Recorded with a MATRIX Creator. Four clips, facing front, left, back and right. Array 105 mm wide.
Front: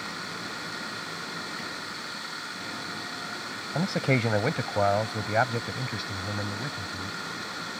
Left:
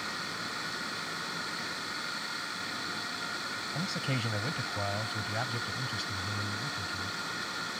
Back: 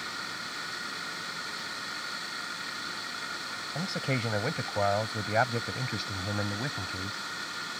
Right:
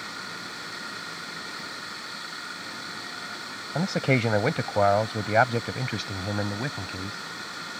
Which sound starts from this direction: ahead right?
A man speaking, at 3.8 s.